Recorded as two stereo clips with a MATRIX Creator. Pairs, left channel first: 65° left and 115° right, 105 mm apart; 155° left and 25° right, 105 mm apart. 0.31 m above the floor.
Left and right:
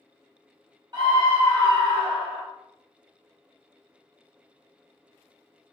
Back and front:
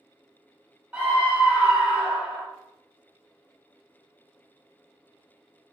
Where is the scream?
95° right, 1.3 m.